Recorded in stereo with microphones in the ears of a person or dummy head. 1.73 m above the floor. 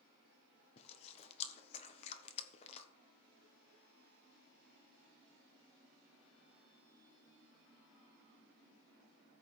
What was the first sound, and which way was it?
Chewing, 40° left (ahead or behind).